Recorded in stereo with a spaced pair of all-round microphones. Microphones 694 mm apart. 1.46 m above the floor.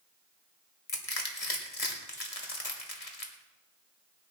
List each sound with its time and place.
0.9 s crushing: 55° left (ahead or behind), 2.0 m